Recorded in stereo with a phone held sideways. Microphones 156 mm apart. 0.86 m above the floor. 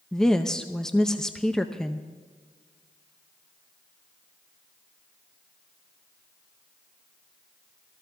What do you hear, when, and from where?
0.1 s a woman speaking: 5° left (ahead or behind), 0.6 m